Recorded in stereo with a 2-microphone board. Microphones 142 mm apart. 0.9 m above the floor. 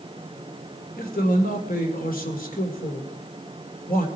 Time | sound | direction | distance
1.0 | a man speaking | 85° left | 3 m